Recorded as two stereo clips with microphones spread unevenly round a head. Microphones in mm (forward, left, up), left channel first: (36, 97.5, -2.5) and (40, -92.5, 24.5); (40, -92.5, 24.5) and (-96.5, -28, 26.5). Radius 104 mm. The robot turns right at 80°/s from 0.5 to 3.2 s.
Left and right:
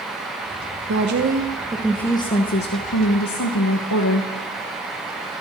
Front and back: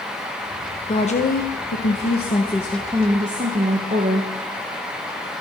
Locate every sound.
0.9 s a woman speaking: 85° right, 1.0 m; by 4.3 s 100° left, 1.0 m